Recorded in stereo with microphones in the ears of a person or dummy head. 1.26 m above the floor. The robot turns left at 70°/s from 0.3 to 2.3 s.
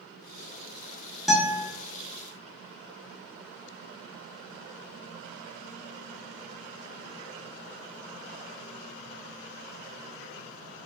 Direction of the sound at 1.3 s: Centre (ahead or behind).